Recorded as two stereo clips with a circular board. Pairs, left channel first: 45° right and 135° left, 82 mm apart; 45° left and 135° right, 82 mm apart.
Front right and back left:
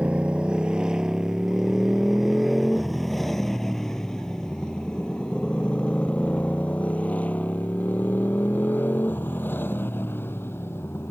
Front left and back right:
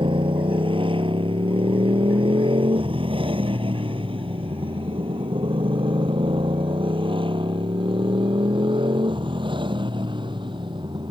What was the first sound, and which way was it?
A motorcycle, 150° right.